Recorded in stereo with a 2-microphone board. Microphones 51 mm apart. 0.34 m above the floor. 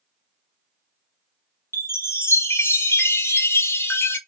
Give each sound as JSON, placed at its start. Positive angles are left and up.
{"t": 1.7, "sound": "a chime", "side_deg": 60, "distance_m": 0.9}